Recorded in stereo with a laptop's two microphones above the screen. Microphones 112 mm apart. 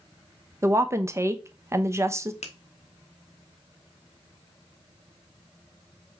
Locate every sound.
0.6 s a woman speaking: 25° right (ahead or behind), 0.6 m
2.4 s a finger snap: 75° left (ahead or behind), 0.7 m